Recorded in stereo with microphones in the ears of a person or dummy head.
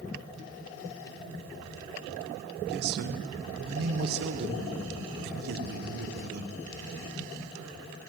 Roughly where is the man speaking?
Right.